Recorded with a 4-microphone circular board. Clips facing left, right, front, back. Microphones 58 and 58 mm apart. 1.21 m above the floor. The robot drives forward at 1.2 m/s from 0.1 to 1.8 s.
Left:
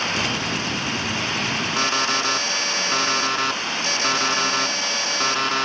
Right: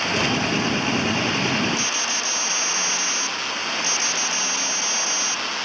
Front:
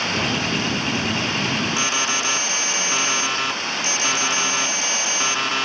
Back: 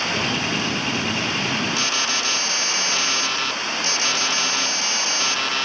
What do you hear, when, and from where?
1.8 s an alarm: 75° left